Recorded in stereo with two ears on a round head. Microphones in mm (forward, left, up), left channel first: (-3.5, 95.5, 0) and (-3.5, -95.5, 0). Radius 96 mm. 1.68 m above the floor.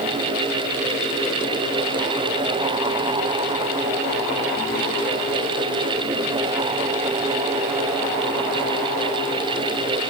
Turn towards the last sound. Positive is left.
No sound to turn to.